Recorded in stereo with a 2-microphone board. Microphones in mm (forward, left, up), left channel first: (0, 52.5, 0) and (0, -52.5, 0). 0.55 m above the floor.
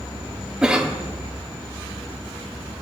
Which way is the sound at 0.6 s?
10° right (ahead or behind).